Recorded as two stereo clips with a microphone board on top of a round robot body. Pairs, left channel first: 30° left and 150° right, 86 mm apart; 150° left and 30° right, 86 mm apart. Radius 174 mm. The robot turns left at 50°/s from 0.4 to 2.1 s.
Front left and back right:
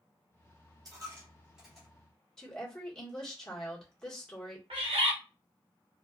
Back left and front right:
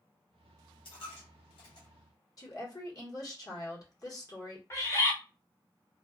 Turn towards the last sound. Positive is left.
turn(degrees=-155)